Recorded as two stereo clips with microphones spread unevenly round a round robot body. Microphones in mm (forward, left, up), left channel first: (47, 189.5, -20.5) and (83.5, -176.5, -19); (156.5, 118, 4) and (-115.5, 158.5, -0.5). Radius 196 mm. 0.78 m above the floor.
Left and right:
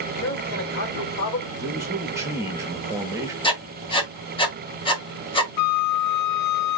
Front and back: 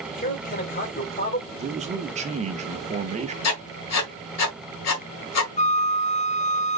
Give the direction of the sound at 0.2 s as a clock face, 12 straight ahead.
10 o'clock.